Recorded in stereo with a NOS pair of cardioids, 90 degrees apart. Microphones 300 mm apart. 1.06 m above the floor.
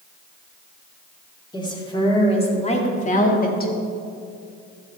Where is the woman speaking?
15° left, 3 m; by 3.7 s 30° left, 1.9 m.